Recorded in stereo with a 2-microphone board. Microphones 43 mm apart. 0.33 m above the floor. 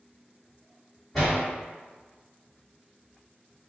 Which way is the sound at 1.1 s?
Centre (ahead or behind).